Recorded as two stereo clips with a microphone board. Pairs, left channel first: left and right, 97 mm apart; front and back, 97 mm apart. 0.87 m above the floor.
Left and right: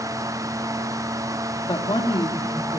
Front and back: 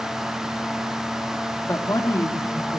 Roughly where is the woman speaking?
Ahead left.